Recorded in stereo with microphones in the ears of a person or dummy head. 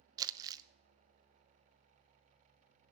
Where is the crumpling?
20° right (ahead or behind), 0.6 m.